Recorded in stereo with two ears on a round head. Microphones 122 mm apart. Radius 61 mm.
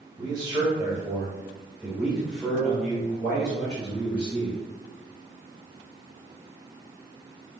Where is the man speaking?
35° right (ahead or behind), 1.9 m; by 4.6 s 25° left (ahead or behind), 2.5 m.